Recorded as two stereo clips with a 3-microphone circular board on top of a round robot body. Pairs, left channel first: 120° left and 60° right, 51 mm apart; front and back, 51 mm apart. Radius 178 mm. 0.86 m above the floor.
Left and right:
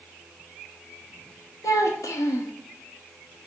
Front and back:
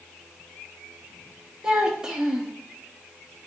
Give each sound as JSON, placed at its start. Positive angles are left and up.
{"t": 1.6, "sound": "a child speaking", "azimuth_deg": 105, "distance_m": 0.8}